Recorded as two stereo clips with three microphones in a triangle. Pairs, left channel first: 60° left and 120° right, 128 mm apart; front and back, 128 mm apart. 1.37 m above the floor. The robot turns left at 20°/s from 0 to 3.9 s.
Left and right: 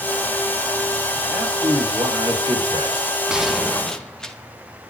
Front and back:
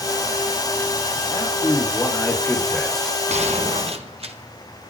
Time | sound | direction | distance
1.3 | a man speaking | 55° right | 5 m
3.3 | a gunshot | 155° left | 1.8 m